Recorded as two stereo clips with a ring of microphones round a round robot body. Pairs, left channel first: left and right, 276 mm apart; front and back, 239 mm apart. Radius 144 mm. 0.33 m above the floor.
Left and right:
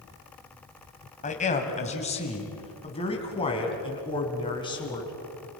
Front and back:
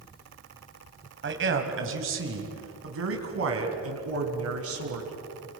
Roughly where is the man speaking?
Behind left.